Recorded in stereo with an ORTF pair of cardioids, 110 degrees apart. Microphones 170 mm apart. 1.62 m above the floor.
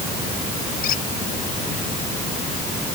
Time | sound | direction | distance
0.8 | a squeak | 60° left | ?